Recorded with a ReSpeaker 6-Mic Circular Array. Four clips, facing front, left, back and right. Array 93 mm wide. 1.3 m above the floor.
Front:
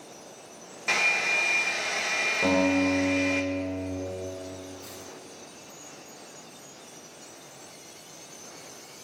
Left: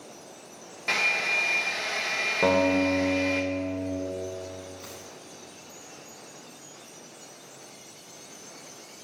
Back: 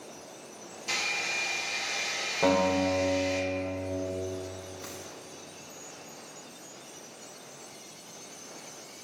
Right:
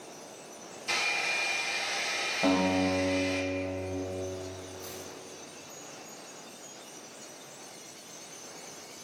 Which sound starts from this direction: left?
A guitar, at 2.4 s.